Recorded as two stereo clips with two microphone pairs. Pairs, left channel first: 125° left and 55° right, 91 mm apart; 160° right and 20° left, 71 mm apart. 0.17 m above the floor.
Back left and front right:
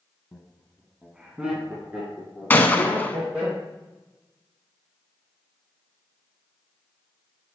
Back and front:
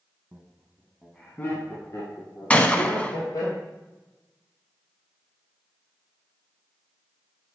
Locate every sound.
0.3 s laughter: 45° left, 1.3 m; by 3.5 s 125° right, 3.5 m
2.5 s a gunshot: 160° left, 0.7 m